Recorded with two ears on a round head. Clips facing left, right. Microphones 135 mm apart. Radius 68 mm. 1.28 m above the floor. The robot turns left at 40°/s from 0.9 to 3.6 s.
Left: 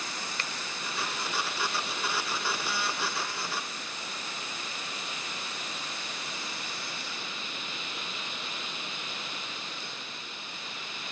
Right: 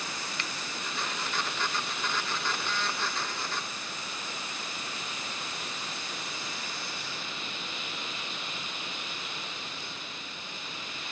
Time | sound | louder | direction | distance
0.4 | a finger snap | even | 30° left (ahead or behind) | ?